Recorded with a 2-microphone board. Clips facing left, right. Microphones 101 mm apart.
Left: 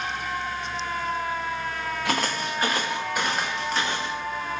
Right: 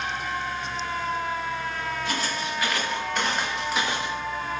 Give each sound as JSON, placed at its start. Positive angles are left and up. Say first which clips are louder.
{"t": 2.0, "sound": "footsteps", "louder": "left 2 dB", "side_deg": 80, "distance_m": 0.6}